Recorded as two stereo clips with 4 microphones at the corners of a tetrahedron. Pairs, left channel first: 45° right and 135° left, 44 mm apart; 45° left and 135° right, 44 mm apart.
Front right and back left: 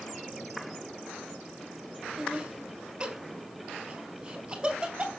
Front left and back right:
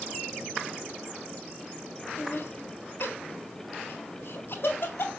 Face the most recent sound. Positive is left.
turn(degrees=65)